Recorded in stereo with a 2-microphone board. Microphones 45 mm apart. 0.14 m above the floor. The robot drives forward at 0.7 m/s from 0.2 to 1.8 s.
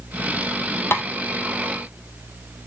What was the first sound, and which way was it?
Tapping, 55° left (ahead or behind).